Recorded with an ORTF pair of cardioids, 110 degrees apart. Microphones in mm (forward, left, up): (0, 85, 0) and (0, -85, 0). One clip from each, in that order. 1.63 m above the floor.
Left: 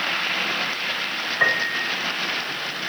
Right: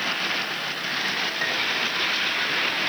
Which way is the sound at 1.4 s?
60° left.